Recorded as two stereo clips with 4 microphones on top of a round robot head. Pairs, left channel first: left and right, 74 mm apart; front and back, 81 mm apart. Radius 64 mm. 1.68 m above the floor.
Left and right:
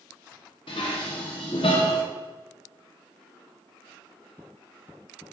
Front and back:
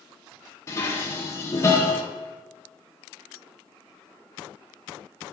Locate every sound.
0.7 s dishes clattering: 50° left, 1.2 m